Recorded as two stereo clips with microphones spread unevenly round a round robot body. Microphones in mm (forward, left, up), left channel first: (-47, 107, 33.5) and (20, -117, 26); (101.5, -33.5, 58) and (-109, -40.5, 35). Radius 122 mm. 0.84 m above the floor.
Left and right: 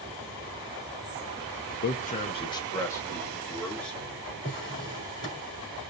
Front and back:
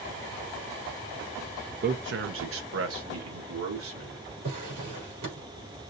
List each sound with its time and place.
1.8 s a man speaking: 150° left, 0.5 m; by 4.3 s 165° right, 2 m
4.4 s a drawer: straight behind, 3.5 m